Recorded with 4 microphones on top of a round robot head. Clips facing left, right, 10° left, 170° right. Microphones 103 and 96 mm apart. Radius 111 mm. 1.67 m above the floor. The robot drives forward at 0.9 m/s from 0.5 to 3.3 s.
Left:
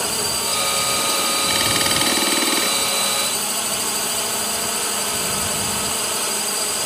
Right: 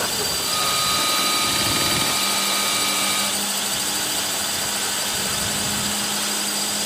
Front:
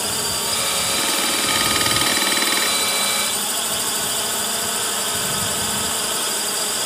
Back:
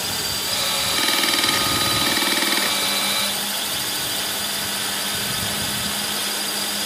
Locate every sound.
0.0 s a drone: 50° left; by 6.9 s 55° left